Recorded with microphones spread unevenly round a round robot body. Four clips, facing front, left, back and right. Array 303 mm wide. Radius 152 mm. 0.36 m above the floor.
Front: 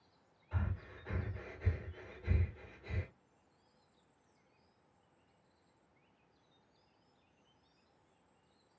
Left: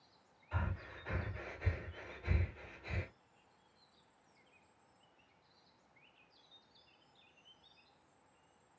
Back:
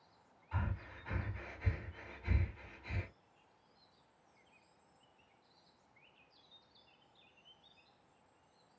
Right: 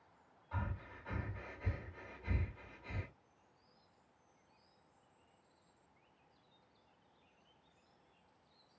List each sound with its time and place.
0.5 s breathing: 15° left, 2 m